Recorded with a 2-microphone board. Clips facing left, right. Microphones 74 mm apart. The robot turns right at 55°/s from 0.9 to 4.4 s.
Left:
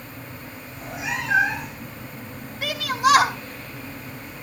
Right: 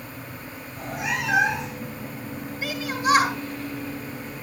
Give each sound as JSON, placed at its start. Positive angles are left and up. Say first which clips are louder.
{"t": 0.7, "sound": "a cat meowing", "louder": "right 1 dB", "azimuth_deg": -135, "distance_m": 9.5}
{"t": 2.6, "sound": "a shout", "louder": "left 4 dB", "azimuth_deg": 65, "distance_m": 3.5}